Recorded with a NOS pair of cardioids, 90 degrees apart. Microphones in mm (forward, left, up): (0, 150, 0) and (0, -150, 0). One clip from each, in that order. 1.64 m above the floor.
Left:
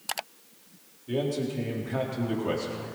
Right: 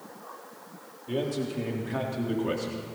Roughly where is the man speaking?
Ahead.